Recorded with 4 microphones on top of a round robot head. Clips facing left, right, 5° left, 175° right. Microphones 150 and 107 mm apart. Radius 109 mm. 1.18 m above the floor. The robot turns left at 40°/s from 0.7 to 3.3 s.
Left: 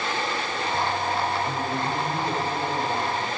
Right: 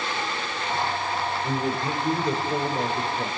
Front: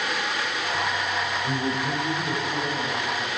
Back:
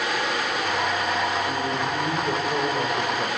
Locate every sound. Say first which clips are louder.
1.4 s a man speaking: right 1 dB, back 1 dB; 70° right, 6.5 m; by 3.3 s 145° right, 6.5 m